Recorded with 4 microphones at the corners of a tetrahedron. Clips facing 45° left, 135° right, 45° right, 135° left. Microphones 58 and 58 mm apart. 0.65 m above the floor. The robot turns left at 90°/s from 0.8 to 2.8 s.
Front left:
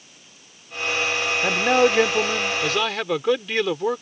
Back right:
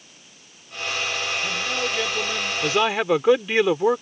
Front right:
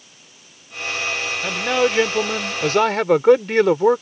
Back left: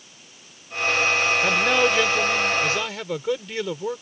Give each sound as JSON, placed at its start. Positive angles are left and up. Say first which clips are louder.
{"t": 1.4, "sound": "a man speaking", "louder": "front left 8 dB, front right 4 dB", "azimuth_deg": 60}